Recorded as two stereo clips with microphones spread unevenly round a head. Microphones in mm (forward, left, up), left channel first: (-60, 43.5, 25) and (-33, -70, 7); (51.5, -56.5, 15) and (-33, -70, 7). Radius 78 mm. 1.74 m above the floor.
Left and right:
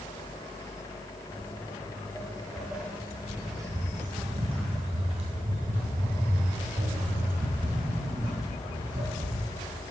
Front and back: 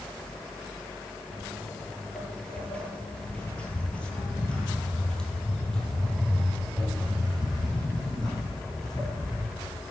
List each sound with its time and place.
1.3 s footsteps: 70° left, 2 m; by 9.4 s 75° right, 4.5 m